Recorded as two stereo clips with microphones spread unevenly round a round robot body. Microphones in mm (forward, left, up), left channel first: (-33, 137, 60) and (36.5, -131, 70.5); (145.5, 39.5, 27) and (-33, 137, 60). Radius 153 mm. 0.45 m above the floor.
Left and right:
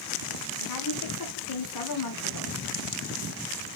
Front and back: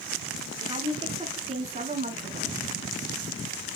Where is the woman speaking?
85° left, 5 m; by 2.6 s 100° left, 4.5 m.